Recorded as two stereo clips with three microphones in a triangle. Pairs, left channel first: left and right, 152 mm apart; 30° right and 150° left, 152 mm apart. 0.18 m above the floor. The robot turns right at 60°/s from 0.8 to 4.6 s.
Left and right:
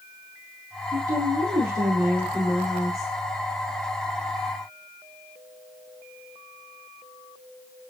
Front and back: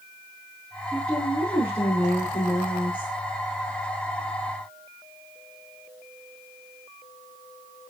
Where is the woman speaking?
125° right, 6.5 m; by 3.1 s 10° left, 6.5 m.